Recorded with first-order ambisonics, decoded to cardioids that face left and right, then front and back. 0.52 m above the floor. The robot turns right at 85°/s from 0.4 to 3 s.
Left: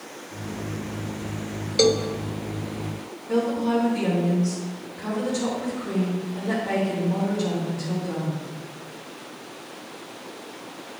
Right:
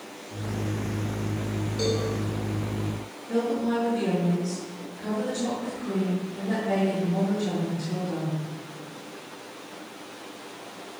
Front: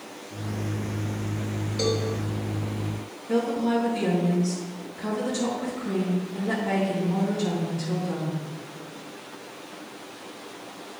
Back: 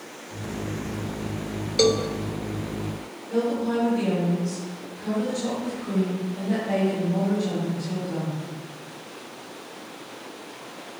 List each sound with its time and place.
1.8 s a cowbell: 130° left, 0.6 m; by 2.1 s 155° left, 0.6 m
3.3 s a woman speaking: 25° left, 3 m